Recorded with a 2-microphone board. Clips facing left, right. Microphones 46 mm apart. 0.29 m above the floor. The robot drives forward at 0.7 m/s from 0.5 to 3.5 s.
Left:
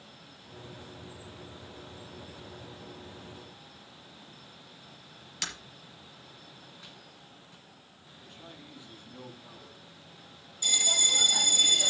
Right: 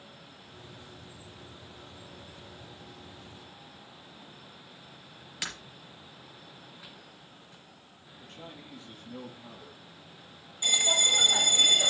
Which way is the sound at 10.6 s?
30° right (ahead or behind).